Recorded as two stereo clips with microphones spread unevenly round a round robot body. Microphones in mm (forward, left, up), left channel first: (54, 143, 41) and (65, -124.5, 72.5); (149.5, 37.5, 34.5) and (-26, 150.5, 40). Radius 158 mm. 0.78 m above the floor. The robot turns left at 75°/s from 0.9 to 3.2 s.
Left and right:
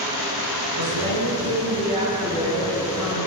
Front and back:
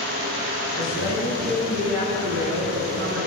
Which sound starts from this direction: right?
A woman speaking, at 0.7 s.